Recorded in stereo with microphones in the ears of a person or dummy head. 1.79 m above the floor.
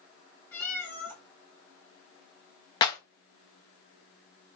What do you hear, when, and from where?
0.5 s a cat meowing: 10° left (ahead or behind), 1.0 m
2.8 s a clap: 20° left (ahead or behind), 0.5 m